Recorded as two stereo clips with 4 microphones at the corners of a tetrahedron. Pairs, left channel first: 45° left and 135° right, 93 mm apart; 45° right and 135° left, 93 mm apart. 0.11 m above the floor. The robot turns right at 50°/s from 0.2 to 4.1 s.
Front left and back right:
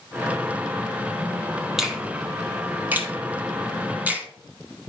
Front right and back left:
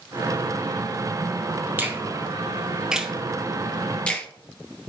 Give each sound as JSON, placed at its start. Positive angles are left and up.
{"t": 1.8, "sound": "a finger snap", "azimuth_deg": 150, "distance_m": 1.1}